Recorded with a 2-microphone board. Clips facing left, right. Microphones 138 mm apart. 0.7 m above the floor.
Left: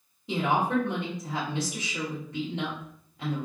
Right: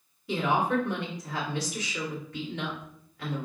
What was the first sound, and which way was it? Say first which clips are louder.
A woman speaking: even; 25° left (ahead or behind).